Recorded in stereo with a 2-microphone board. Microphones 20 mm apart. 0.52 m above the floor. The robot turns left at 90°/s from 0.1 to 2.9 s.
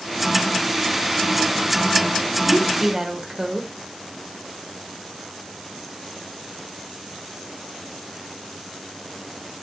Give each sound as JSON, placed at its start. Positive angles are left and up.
{"t": 2.5, "sound": "a woman speaking", "azimuth_deg": 10, "distance_m": 1.9}